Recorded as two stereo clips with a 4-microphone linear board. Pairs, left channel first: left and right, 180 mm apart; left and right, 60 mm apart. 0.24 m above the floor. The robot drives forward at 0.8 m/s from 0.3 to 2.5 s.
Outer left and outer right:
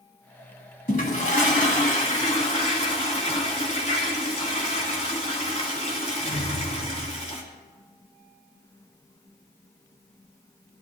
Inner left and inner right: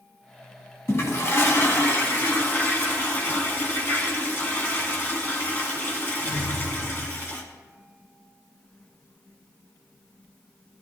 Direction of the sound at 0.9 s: 50° left (ahead or behind).